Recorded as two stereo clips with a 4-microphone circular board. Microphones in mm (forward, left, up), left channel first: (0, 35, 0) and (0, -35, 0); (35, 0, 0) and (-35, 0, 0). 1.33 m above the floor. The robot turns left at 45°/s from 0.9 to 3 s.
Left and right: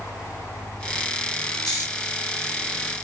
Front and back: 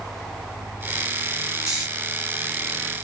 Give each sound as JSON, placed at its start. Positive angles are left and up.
{"t": 1.7, "sound": "snoring", "azimuth_deg": 105, "distance_m": 1.3}